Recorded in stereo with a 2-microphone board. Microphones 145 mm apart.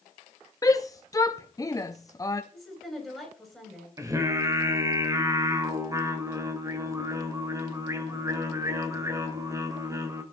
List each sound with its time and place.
0.6 s a shout: 25° left (ahead or behind), 0.6 m
2.5 s a woman speaking: centre (ahead or behind), 10 m
4.0 s singing: 20° right (ahead or behind), 1.8 m